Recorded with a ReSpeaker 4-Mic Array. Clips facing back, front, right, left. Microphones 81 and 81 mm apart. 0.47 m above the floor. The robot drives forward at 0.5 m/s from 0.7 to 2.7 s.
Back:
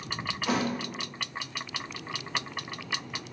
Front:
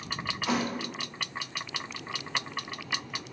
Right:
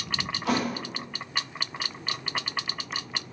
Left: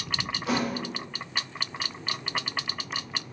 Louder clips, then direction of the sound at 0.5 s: Back 1 dB, right 1 dB; 90° right.